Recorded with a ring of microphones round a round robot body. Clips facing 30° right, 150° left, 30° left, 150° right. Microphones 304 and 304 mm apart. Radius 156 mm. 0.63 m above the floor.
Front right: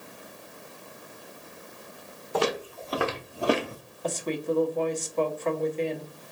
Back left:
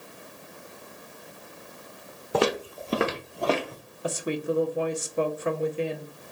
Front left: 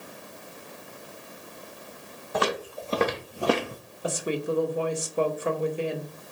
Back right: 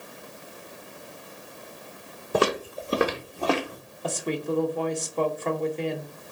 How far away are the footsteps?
About 0.9 m.